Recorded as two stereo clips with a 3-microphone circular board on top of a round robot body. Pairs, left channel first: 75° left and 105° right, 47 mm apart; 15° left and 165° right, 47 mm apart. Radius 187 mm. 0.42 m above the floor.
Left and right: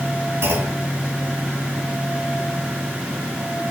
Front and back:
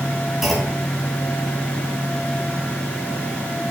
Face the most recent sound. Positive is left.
turn(degrees=-80)